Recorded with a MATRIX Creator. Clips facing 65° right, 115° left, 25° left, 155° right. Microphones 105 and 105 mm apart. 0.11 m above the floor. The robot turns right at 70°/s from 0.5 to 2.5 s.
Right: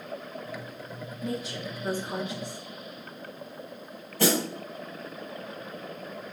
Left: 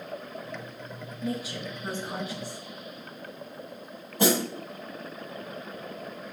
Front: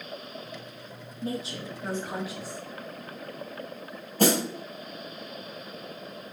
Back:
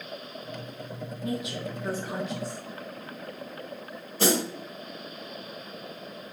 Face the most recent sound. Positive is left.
turn(degrees=45)